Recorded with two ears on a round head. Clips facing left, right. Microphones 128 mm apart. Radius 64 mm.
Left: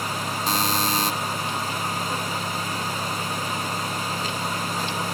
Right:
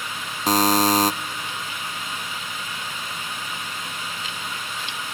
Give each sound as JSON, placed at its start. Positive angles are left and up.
{"t": 0.5, "sound": "a buzzer", "side_deg": -35, "distance_m": 0.6}